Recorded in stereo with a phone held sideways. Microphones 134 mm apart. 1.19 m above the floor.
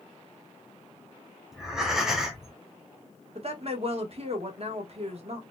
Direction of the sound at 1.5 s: 5° right (ahead or behind).